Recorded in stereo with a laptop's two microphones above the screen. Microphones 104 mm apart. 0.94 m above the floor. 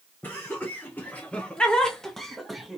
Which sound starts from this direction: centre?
Laughter, at 0.2 s.